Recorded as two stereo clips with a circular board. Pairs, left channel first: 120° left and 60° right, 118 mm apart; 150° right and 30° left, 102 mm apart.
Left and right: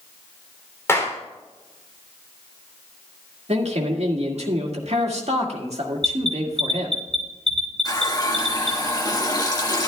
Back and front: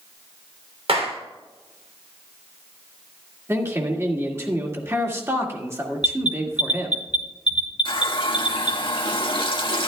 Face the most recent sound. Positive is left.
turn(degrees=175)